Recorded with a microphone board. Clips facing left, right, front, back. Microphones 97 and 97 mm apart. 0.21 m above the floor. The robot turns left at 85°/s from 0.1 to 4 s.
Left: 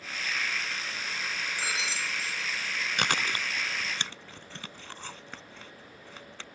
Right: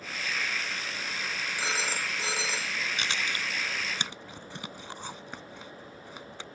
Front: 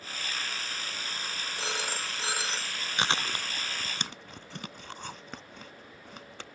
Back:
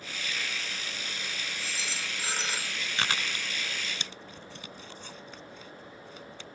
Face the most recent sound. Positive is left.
turn(degrees=-15)